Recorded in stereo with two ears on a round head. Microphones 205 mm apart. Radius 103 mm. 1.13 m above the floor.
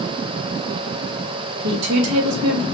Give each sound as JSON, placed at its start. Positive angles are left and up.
{"t": 1.6, "sound": "a woman speaking", "side_deg": -70, "distance_m": 1.3}